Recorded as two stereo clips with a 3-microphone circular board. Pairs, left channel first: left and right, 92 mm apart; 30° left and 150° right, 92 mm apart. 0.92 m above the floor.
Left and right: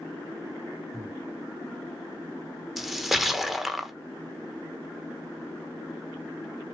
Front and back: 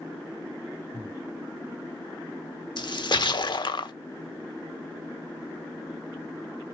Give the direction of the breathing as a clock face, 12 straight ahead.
5 o'clock.